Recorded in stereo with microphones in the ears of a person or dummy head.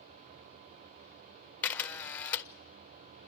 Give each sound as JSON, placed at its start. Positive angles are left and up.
{"t": 1.6, "sound": "a camera shutter", "side_deg": 10, "distance_m": 0.6}